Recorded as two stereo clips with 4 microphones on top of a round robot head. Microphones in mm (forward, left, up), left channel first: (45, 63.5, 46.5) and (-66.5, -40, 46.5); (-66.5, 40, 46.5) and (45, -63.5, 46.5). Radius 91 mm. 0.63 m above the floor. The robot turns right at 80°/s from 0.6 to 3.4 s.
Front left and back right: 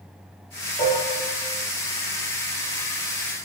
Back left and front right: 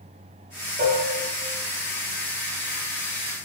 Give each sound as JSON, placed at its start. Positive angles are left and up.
{"t": 0.8, "sound": "dishes clattering", "azimuth_deg": -25, "distance_m": 1.6}